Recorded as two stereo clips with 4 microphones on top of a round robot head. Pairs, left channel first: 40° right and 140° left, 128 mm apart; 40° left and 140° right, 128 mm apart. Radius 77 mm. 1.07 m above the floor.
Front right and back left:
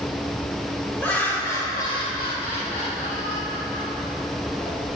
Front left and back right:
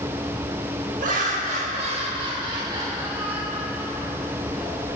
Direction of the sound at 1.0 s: 115° right.